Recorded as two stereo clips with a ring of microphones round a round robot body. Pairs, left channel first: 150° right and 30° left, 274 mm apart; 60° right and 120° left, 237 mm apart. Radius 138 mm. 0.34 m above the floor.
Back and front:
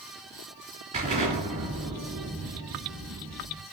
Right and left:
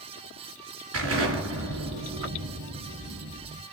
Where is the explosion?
95° left, 3 m.